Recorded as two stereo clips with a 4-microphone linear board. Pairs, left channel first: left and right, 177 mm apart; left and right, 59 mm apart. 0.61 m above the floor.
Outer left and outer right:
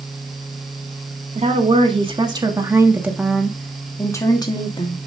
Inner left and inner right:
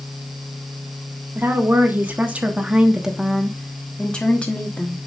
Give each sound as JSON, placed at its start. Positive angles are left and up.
{"t": 1.4, "sound": "a woman speaking", "side_deg": -40, "distance_m": 1.5}